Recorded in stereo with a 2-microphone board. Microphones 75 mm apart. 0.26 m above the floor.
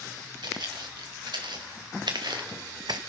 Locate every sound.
0.4 s footsteps: 80° right, 3.5 m; by 3.0 s 70° right (ahead or behind), 0.7 m